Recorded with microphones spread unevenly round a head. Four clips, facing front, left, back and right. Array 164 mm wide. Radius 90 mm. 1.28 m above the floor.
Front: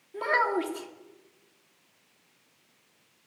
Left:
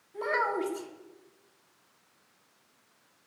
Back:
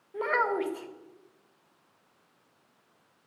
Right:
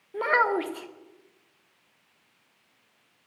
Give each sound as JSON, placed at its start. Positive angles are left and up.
{"t": 0.1, "sound": "a child speaking", "azimuth_deg": -75, "distance_m": 1.1}